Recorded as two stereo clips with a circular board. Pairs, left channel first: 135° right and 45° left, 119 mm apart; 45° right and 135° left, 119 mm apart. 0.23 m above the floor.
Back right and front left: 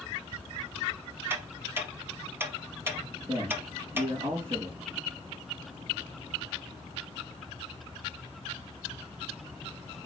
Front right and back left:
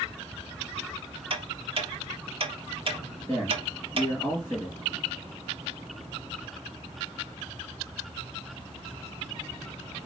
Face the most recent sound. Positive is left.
turn(degrees=20)